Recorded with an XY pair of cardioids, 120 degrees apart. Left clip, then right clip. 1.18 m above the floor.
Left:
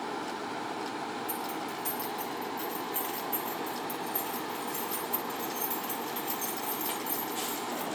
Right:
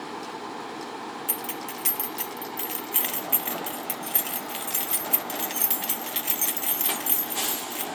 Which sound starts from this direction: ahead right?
Keys jangling, at 1.3 s.